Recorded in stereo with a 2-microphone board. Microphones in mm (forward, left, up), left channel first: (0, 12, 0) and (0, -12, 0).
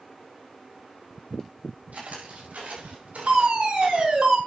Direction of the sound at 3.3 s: 45° right (ahead or behind).